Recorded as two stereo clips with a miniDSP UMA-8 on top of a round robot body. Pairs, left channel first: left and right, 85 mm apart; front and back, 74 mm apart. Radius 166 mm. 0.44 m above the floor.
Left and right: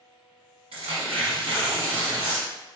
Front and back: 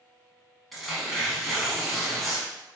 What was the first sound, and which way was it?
Tearing paper, 90° right.